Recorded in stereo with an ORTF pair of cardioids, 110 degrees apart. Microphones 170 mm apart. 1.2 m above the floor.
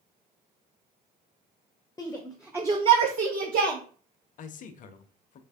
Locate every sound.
2.0 s a shout: 20° left, 0.5 m; by 3.8 s 65° right, 0.9 m
4.4 s a man speaking: 50° left, 0.5 m